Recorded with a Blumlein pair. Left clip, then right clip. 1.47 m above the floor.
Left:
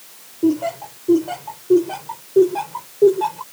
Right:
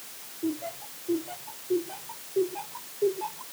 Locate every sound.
0.4 s laughter: 60° left